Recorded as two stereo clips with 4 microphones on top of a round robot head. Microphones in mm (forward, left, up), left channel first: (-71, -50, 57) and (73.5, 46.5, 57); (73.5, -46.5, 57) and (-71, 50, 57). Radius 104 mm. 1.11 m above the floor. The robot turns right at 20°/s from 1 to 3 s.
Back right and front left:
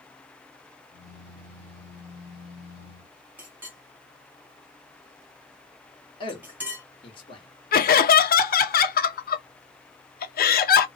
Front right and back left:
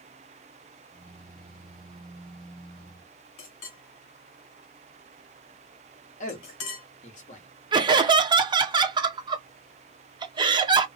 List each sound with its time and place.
3.4 s a clink: 45° right, 1.3 m
6.2 s a man speaking: 85° right, 1.3 m
7.7 s laughter: 155° right, 0.6 m